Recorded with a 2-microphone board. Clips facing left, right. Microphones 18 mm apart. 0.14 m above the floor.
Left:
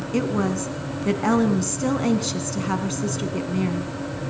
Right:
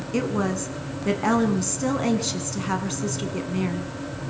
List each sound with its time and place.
0.1 s a woman speaking: centre (ahead or behind), 1.0 m